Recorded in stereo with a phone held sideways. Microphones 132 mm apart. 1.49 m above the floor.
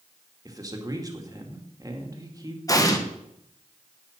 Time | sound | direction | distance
0.5 | a man speaking | 30° right (ahead or behind) | 2.5 m
2.7 | an explosion | 25° left (ahead or behind) | 1.7 m